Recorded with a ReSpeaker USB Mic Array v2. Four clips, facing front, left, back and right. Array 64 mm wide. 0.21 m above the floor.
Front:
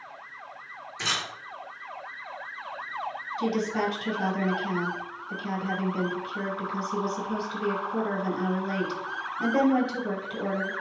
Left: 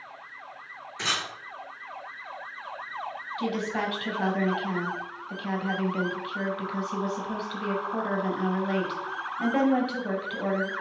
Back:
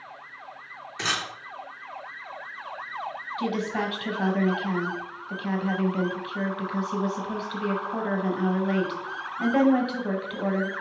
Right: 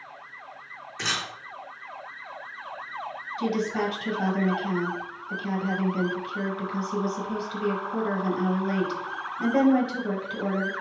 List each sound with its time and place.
1.0 s a camera shutter: straight behind, 1.9 m
3.4 s a woman speaking: 150° left, 1.1 m